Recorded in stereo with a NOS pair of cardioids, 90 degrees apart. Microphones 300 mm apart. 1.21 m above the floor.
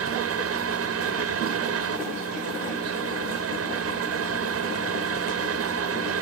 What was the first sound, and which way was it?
A fan, 55° right.